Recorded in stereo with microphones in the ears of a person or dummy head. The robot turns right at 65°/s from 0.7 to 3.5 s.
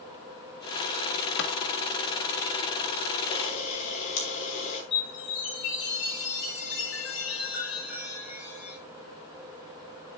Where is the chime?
60° left (ahead or behind), 5 m.